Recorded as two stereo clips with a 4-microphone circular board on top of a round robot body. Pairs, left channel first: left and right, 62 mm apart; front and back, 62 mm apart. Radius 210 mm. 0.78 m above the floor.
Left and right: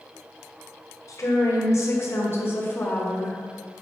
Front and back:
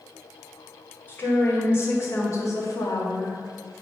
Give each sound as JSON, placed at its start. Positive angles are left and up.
{"t": 1.1, "sound": "a woman speaking", "azimuth_deg": 55, "distance_m": 2.5}